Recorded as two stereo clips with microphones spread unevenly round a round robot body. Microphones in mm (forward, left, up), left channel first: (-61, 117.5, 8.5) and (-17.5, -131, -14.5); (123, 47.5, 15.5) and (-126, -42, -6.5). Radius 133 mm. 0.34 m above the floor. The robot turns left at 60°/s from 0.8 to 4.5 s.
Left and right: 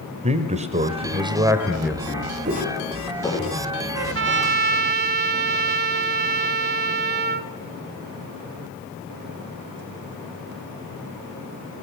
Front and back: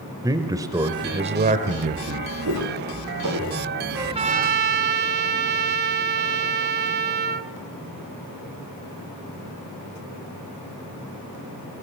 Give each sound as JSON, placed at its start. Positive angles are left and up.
{"t": 0.2, "sound": "a man speaking", "azimuth_deg": -100, "distance_m": 1.0}
{"t": 2.5, "sound": "footsteps", "azimuth_deg": -130, "distance_m": 4.5}
{"t": 3.9, "sound": "a trumpet", "azimuth_deg": -85, "distance_m": 0.7}